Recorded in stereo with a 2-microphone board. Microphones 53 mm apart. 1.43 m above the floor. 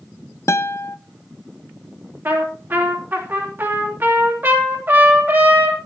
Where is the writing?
I don't hear writing.